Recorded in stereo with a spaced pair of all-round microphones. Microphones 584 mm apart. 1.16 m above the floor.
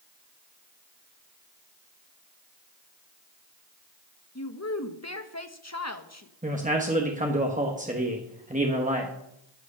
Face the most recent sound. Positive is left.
turn(degrees=-15)  # may be behind; listen again after turning